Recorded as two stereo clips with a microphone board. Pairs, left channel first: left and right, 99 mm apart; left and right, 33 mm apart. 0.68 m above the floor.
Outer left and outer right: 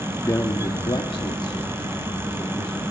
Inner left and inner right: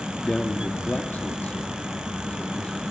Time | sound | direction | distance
0.2 | a man speaking | 30° left (ahead or behind) | 1.1 m